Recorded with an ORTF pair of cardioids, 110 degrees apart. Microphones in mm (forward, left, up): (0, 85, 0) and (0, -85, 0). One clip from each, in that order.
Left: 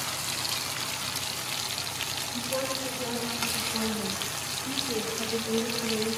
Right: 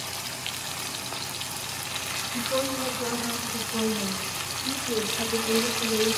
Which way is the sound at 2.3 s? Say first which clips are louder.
Right 4 dB; 30° right.